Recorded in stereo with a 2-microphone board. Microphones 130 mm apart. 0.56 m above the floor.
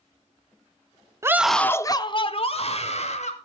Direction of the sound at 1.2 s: 20° right (ahead or behind).